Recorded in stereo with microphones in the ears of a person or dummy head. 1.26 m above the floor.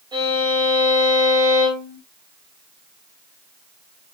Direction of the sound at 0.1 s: 20° right (ahead or behind).